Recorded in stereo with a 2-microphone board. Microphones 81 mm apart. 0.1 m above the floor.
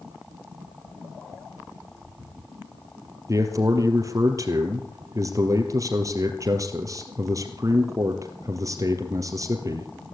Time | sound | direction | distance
3.3 | a man speaking | 40° right (ahead or behind) | 2 m